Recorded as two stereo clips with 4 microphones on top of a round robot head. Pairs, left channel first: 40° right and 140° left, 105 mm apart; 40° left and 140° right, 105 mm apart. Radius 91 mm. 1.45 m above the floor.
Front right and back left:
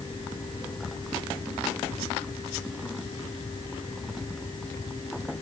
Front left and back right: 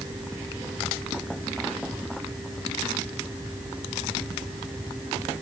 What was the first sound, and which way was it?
Only background noise.